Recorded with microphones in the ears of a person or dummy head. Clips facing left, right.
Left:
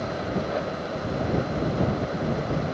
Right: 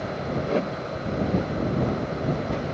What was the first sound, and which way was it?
A whoosh, 50° right (ahead or behind).